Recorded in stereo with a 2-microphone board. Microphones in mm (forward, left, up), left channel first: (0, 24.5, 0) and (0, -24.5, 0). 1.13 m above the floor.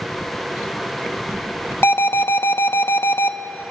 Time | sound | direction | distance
1.8 | an alarm | 60° left (ahead or behind) | 0.7 m